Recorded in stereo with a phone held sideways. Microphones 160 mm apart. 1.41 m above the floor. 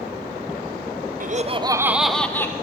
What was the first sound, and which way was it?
Laughter, 55° right (ahead or behind).